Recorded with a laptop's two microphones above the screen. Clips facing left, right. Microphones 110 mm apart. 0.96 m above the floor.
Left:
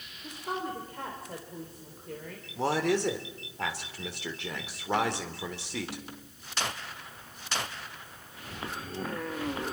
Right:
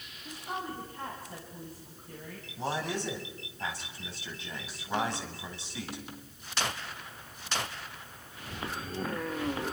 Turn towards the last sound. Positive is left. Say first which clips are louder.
# left 7 dB
turn(degrees=80)